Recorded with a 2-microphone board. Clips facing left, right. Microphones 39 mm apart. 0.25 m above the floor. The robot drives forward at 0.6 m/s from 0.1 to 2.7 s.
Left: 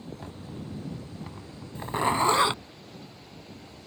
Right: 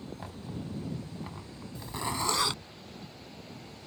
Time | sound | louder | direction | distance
0.2 | knocking | even | 5° right (ahead or behind) | ?
1.8 | a zipper | left 9 dB | 45° left (ahead or behind) | ?